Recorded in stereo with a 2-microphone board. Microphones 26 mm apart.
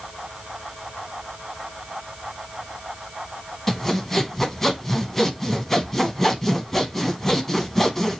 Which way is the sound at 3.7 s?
10° left (ahead or behind).